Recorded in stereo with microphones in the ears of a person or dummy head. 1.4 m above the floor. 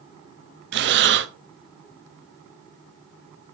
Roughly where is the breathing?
Right.